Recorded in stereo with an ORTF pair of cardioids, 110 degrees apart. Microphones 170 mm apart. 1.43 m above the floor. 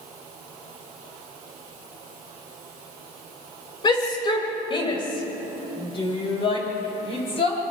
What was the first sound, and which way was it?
A shout, 30° left.